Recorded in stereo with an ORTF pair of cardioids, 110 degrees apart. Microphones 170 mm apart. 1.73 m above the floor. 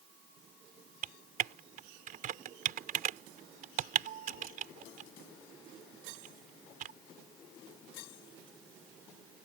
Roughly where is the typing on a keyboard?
Ahead right.